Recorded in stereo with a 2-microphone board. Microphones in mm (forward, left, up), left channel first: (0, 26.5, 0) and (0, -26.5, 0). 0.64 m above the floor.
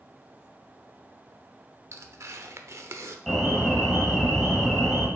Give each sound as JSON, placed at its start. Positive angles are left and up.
{"t": 1.9, "sound": "tearing paper", "side_deg": -60, "distance_m": 0.7}
{"t": 3.3, "sound": "an alarm", "side_deg": 5, "distance_m": 2.5}